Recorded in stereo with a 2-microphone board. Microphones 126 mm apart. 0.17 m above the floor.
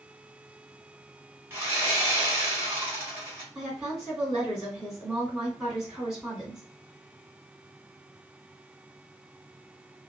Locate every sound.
1.5 s sawing: 20° right (ahead or behind), 1.4 m
3.5 s a woman speaking: 5° right (ahead or behind), 1.9 m